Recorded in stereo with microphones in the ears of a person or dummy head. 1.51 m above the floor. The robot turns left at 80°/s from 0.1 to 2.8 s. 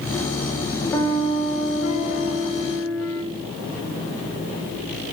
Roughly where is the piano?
Behind.